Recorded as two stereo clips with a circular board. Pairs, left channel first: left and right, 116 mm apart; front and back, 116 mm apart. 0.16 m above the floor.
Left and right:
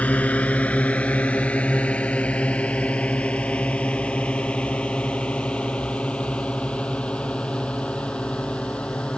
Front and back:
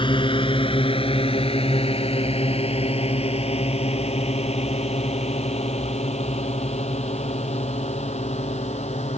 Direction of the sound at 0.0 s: 15° left.